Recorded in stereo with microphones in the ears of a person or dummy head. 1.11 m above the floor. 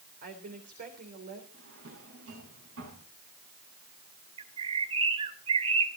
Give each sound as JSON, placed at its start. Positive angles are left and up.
{"t": 0.2, "sound": "a woman speaking", "side_deg": -60, "distance_m": 3.5}
{"t": 1.5, "sound": "a drawer", "side_deg": -85, "distance_m": 5.5}
{"t": 4.4, "sound": "a bird", "side_deg": -35, "distance_m": 1.4}